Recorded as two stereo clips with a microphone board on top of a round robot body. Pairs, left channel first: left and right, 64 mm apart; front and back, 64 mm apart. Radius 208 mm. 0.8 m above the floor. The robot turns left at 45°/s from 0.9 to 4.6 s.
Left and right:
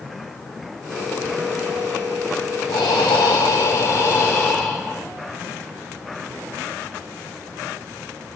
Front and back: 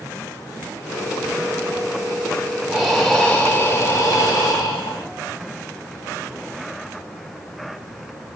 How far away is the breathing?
About 0.5 m.